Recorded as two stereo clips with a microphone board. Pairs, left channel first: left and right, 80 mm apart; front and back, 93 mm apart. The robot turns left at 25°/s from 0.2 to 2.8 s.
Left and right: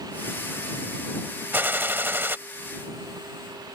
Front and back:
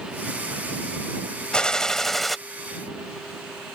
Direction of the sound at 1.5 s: 70° right.